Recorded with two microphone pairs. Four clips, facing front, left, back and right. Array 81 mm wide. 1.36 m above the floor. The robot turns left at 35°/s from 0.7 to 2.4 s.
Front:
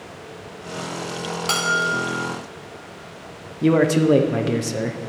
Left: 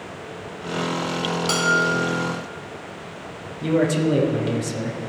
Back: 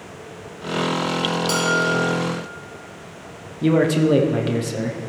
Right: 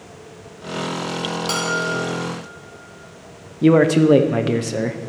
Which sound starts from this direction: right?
A man speaking, at 3.6 s.